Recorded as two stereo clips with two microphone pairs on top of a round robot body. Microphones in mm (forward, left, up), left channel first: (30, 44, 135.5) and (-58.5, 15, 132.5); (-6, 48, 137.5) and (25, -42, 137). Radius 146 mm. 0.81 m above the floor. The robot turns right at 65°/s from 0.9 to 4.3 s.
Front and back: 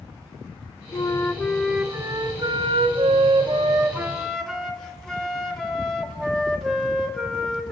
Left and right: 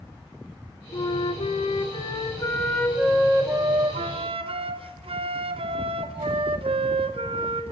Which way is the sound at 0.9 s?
70° left.